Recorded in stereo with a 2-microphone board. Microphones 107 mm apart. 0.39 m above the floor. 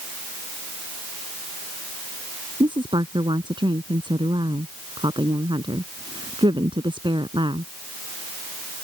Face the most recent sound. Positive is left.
turn(degrees=-50)  # may be behind; listen again after turning